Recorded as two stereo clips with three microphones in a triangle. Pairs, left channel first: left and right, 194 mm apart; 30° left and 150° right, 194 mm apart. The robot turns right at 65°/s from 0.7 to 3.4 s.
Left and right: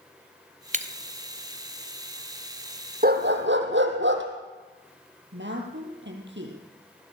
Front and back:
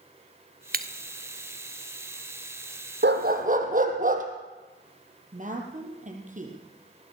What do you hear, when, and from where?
0.7 s breaking glass: 130° right, 0.7 m; by 0.9 s 125° right, 0.7 m
3.0 s a dog barking: 130° right, 2.5 m; by 4.2 s 105° right, 2.5 m
5.3 s a woman speaking: 105° right, 5 m